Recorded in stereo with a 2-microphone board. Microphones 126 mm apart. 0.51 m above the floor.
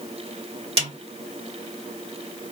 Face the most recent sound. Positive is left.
turn(degrees=-50)  # may be behind; listen again after turning